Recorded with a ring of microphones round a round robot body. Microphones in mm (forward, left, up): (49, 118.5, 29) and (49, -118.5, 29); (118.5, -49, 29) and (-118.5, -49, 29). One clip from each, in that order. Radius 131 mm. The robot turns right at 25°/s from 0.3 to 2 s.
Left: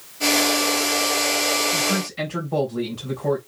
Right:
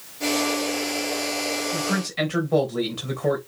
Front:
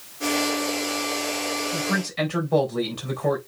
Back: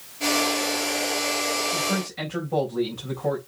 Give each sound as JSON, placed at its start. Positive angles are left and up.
{"t": 1.7, "sound": "a man speaking", "azimuth_deg": -45, "distance_m": 3.5}